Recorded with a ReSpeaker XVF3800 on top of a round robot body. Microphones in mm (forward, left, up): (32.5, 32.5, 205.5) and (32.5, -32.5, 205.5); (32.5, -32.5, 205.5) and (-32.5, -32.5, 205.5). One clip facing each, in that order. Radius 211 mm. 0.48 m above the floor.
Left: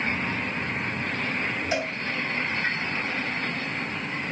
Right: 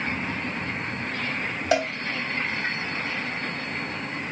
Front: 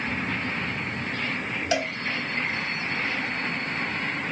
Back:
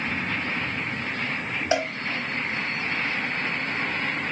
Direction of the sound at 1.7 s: 120° right.